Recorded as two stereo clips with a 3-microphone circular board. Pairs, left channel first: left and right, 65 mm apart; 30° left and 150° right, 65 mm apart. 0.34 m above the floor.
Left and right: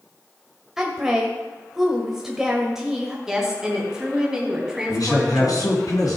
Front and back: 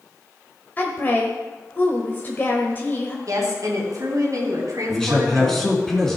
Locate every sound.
0.8 s a woman speaking: 10° right, 1.4 m
3.3 s a woman speaking: 170° right, 3 m
4.9 s a man speaking: 115° left, 3.5 m